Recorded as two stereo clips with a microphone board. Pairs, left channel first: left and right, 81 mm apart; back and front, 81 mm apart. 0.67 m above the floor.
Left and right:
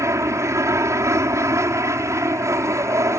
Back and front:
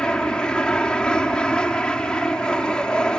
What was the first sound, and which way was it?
An aircraft, 105° right.